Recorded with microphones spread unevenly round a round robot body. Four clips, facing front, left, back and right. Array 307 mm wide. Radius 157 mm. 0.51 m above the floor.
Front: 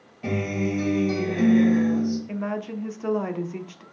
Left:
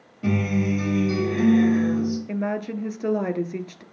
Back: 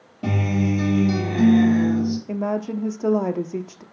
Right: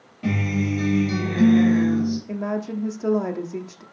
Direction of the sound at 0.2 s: 170° left.